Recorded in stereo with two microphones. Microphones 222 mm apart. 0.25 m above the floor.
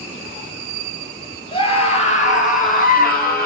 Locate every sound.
1.5 s a scream: 25° left (ahead or behind), 5 m; by 3.5 s 45° left (ahead or behind), 6.5 m